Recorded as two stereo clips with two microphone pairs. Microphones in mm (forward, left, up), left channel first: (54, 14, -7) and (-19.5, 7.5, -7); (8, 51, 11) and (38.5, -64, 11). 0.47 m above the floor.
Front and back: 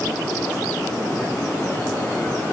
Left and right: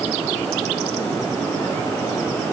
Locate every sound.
Only background noise.